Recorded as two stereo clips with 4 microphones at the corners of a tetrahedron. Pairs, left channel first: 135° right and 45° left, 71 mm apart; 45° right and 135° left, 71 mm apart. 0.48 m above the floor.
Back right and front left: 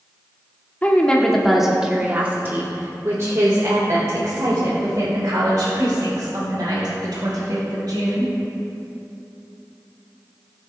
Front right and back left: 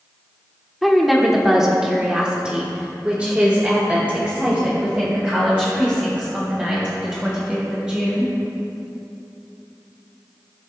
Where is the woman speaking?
130° right, 1.2 m; by 8.3 s 65° left, 5 m.